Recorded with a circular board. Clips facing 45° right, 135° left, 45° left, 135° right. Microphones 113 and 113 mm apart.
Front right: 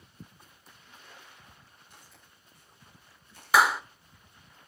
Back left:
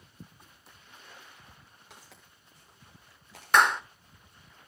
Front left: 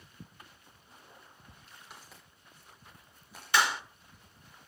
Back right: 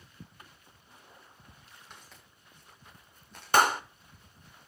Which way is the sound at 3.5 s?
130° right.